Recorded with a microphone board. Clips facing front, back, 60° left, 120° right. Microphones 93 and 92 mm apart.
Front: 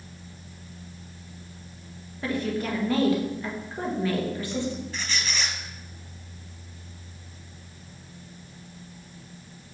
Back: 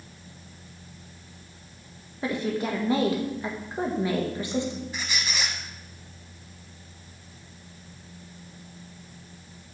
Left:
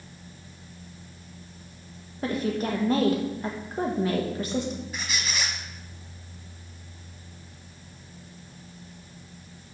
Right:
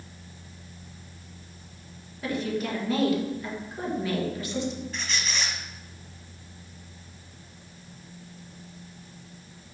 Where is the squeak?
125° left, 1.4 m.